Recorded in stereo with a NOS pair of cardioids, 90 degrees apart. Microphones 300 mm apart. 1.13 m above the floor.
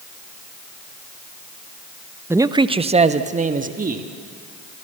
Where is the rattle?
I don't hear a rattle.